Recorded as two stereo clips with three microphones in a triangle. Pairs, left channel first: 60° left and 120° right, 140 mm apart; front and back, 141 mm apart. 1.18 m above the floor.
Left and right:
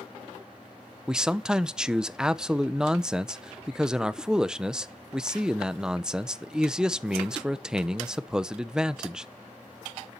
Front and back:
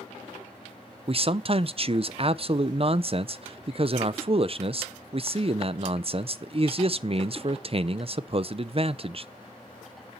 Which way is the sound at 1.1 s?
155° left.